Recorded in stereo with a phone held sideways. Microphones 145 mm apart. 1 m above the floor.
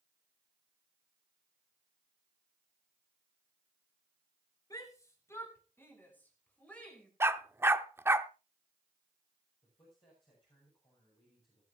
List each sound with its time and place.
4.7 s a shout: 25° left (ahead or behind), 3.5 m; by 7.1 s 5° left (ahead or behind), 5 m
7.2 s a dog barking: 15° right (ahead or behind), 0.6 m
9.6 s a man speaking: 35° left (ahead or behind), 6.5 m